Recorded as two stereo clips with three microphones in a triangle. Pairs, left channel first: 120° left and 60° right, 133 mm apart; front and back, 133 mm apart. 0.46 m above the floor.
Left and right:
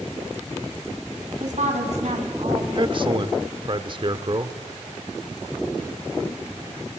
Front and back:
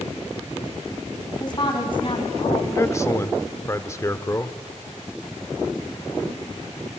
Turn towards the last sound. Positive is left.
turn(degrees=-50)